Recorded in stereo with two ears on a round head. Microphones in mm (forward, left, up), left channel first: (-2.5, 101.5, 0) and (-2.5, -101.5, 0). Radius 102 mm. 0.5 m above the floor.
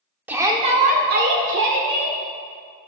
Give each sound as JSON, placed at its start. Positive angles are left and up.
{"t": 0.3, "sound": "a shout", "side_deg": -5, "distance_m": 1.5}